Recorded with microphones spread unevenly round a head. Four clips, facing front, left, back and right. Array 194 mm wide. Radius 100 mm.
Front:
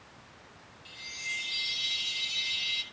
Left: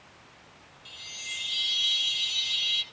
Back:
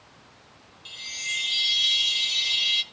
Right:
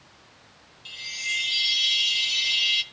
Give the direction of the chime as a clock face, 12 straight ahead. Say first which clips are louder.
Right 10 dB, back 4 dB; 5 o'clock.